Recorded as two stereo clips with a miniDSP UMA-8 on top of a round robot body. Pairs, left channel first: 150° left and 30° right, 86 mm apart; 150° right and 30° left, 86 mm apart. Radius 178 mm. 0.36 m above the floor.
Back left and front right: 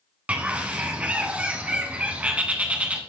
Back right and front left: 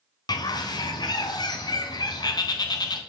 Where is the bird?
105° right, 0.7 m.